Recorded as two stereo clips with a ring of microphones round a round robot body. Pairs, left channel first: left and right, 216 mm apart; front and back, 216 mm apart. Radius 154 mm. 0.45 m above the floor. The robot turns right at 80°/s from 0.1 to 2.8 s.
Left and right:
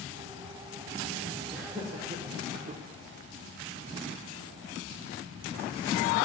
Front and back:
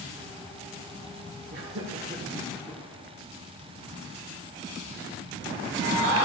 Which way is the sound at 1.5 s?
175° right.